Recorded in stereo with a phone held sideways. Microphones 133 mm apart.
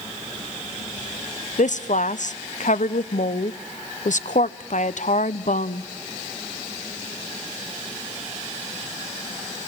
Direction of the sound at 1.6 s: 70° left (ahead or behind).